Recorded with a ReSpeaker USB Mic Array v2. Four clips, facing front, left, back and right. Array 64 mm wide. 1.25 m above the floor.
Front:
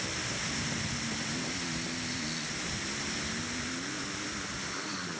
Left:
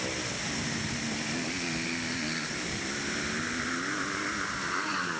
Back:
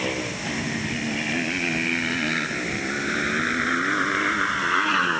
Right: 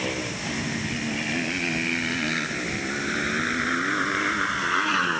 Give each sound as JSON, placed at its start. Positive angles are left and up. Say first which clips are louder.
{"t": 0.0, "sound": "a motorcycle", "louder": "right 5 dB, back 9 dB", "azimuth_deg": -155}